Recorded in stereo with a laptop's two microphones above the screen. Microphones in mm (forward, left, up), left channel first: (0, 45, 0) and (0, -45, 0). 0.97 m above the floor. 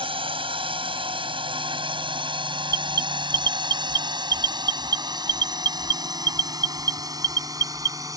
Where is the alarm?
50° right (ahead or behind).